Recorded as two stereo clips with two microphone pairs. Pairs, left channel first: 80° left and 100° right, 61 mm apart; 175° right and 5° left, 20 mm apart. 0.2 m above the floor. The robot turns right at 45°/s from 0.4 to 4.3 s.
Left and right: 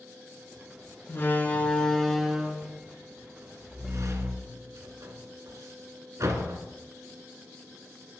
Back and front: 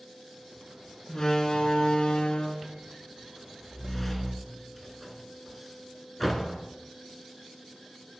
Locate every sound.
1.1 s a door slam: 125° left, 1.6 m; by 6.7 s 90° right, 1.6 m